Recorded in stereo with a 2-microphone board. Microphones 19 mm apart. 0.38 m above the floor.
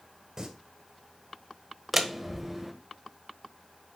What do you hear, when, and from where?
0.4 s singing: 25° right (ahead or behind), 2.5 m
1.9 s a door slam: 10° right (ahead or behind), 1.2 m